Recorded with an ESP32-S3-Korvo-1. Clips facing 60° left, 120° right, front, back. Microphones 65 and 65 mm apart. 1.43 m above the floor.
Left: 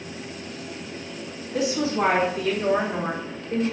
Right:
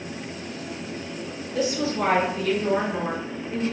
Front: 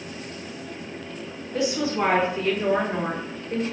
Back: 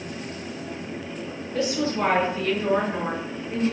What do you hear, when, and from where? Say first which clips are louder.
1.5 s a woman speaking: left 1 dB, front 1 dB; 75° left, 1.7 m; by 3.6 s 45° left, 2.5 m